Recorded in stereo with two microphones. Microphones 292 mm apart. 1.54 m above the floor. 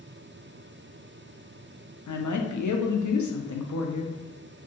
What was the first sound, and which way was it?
A woman speaking, 75° left (ahead or behind).